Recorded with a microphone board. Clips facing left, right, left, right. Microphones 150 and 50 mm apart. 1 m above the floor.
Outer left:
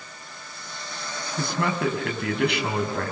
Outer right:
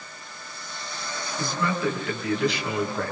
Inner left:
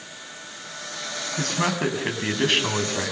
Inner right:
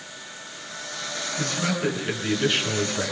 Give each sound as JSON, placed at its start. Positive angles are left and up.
{"t": 1.4, "sound": "a man speaking", "side_deg": 65, "distance_m": 7.0}